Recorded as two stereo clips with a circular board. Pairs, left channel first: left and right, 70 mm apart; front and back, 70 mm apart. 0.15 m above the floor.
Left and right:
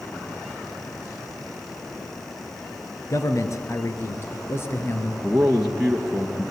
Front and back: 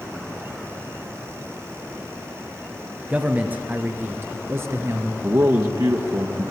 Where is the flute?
I don't hear a flute.